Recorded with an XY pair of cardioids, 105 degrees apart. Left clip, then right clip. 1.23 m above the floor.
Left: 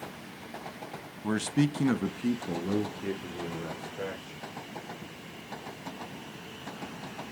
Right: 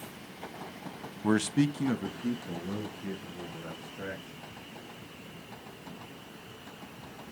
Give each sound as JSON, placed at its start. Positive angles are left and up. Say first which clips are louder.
{"t": 1.2, "sound": "a man speaking", "louder": "right 1 dB", "azimuth_deg": -30, "distance_m": 0.7}